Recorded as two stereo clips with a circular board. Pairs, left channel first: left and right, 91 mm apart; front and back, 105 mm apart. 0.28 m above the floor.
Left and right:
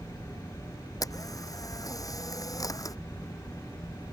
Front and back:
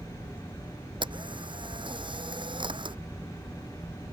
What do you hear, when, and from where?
1.0 s a camera shutter: 140° left